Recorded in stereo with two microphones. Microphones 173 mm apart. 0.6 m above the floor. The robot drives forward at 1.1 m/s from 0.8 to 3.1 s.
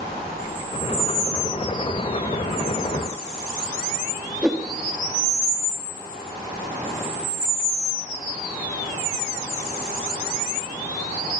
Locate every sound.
4.4 s a whoosh: 5° right (ahead or behind), 1.1 m